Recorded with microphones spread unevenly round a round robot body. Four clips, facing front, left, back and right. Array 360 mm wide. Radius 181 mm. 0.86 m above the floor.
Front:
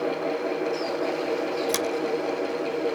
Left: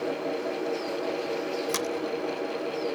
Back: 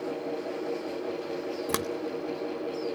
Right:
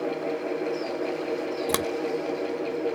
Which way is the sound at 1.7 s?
120° right.